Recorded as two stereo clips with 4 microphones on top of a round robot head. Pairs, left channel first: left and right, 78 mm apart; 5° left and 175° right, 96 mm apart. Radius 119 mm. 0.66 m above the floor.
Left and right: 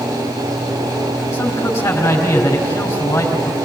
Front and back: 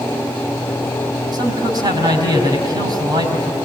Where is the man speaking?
145° left, 4.5 m.